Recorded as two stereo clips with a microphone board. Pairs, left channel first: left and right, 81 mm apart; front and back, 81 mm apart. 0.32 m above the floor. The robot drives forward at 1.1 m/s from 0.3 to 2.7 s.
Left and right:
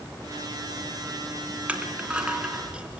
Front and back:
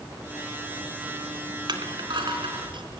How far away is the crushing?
About 2.5 m.